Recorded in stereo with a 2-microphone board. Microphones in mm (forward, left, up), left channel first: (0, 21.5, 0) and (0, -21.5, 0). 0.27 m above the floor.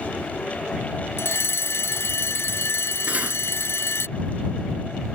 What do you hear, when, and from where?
1.2 s a fire alarm: 70° left (ahead or behind)
3.1 s cutlery clinking: 35° right (ahead or behind)